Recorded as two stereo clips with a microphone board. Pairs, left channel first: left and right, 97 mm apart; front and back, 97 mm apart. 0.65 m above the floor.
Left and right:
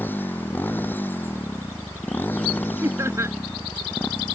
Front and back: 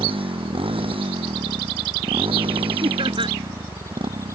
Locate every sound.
0.0 s a motorcycle: 160° left
2.8 s laughter: 150° right